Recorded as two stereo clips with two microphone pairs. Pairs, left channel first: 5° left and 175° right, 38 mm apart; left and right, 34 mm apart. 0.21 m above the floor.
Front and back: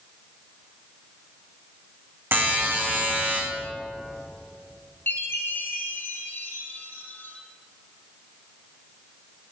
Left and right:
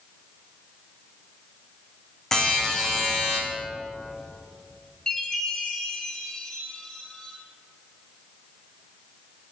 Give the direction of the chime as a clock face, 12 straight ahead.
11 o'clock.